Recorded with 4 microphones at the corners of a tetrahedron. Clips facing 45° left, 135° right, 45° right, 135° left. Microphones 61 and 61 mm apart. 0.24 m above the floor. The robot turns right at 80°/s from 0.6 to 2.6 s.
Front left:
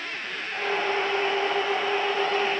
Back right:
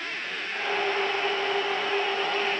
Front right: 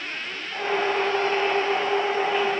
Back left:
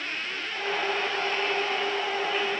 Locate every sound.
Only background noise.